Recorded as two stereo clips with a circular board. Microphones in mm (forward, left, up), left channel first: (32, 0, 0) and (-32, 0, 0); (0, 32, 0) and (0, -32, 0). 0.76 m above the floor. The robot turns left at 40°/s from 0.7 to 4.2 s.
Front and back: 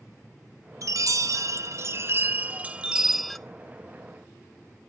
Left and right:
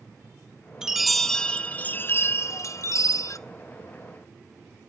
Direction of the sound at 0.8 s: 170° right.